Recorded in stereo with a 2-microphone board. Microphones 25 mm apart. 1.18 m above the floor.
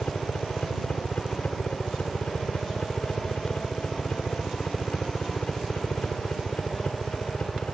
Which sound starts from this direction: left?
A helicopter, at 0.0 s.